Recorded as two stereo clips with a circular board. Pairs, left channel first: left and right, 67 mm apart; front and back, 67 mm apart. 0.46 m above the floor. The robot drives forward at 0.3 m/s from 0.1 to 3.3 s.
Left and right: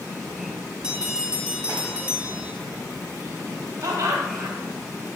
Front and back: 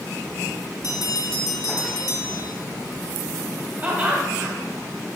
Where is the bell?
10° right, 1.2 m; by 2.5 s 20° right, 0.7 m.